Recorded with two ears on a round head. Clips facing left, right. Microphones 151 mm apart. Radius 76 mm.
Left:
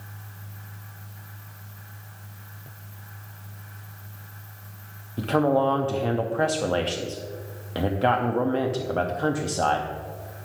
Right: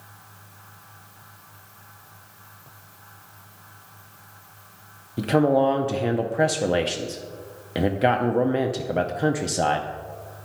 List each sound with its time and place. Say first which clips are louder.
5.2 s a man speaking: right 2 dB; 20° right (ahead or behind), 0.5 m